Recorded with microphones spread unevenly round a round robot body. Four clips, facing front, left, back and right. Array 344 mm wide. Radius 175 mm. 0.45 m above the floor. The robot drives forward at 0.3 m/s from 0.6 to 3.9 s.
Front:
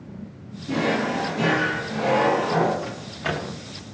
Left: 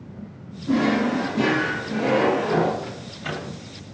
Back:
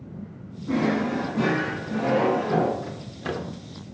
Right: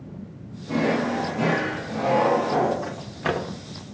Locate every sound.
0.7 s a drawer: 115° left, 1.4 m; by 2.7 s 135° left, 1.7 m
2.8 s a microwave: 95° right, 0.8 m; by 3.6 s 115° right, 0.8 m